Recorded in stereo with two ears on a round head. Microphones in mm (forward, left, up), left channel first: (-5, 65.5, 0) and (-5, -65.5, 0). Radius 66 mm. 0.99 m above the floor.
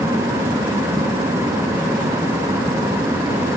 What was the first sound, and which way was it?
Only background noise.